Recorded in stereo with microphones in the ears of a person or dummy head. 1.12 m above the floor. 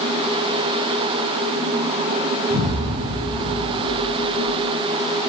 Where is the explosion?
70° right (ahead or behind), 6.5 m.